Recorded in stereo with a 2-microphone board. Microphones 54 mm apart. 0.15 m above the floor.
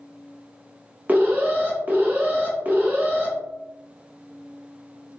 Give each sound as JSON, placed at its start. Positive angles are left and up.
{"t": 1.1, "sound": "an alarm", "side_deg": -40, "distance_m": 0.9}